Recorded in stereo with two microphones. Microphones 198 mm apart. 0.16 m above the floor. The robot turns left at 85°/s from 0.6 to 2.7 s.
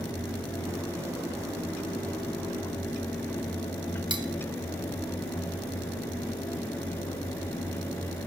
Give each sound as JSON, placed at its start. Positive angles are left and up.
{"t": 4.1, "sound": "cutlery clinking", "side_deg": -25, "distance_m": 1.2}